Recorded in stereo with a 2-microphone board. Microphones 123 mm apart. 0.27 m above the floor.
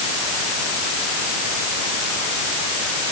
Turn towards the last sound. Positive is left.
No sound to turn to.